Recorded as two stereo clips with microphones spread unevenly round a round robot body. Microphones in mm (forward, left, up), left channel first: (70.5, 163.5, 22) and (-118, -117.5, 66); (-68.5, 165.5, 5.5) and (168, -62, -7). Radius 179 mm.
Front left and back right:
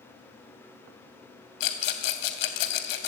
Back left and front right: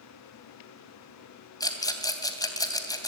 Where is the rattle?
55° left, 3 m.